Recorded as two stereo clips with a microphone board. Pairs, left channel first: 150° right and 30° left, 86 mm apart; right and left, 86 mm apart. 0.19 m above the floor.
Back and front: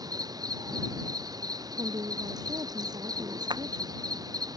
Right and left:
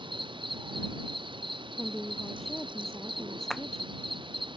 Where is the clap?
5° right.